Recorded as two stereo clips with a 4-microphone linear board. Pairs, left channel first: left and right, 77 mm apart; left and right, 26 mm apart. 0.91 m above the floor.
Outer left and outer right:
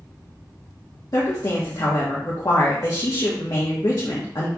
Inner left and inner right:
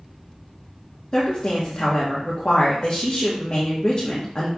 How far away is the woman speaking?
About 1.1 m.